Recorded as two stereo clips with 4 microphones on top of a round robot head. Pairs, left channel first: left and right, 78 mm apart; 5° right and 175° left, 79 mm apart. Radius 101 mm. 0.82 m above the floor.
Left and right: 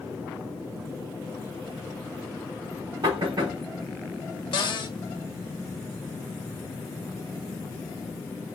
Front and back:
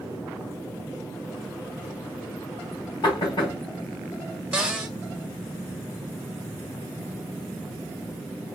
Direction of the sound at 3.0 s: 50° right.